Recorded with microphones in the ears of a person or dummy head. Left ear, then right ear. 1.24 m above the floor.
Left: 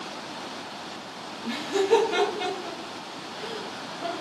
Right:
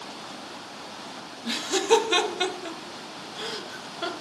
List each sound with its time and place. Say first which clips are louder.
1.4 s laughter: right 1 dB; 45° right (ahead or behind), 0.5 m